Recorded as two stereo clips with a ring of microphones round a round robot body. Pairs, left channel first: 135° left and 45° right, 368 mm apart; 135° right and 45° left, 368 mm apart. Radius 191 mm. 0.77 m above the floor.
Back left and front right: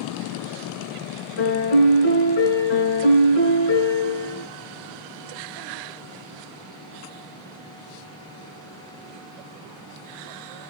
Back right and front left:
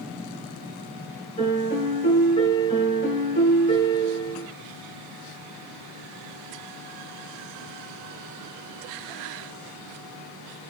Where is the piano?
150° left, 2.5 m.